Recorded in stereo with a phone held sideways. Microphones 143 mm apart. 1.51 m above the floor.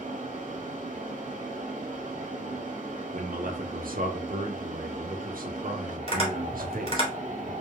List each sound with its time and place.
0.0 s a fan: 65° right (ahead or behind), 1.7 m
3.1 s a man speaking: 85° right, 1.1 m
6.1 s tapping: 40° left (ahead or behind), 2.5 m